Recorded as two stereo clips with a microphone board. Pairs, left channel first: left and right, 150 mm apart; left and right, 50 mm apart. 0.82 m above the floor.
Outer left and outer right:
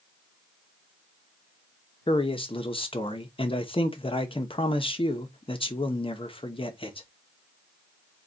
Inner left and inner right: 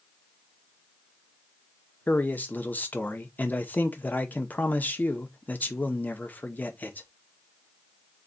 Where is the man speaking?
35° left (ahead or behind), 0.8 m.